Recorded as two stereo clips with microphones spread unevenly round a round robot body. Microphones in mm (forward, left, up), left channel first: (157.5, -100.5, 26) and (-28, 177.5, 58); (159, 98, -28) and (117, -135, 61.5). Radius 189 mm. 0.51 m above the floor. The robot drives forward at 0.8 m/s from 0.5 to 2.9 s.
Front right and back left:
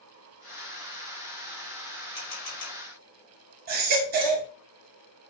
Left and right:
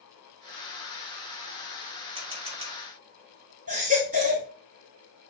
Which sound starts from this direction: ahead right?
A camera shutter, at 2.1 s.